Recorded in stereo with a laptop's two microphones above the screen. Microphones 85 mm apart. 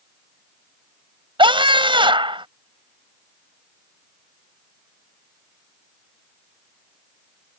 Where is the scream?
80° right.